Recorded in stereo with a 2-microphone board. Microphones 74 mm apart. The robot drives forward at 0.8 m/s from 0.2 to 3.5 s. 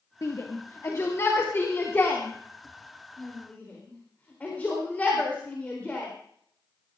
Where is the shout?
50° left (ahead or behind), 1.8 m; by 6.1 s 20° left (ahead or behind), 4 m.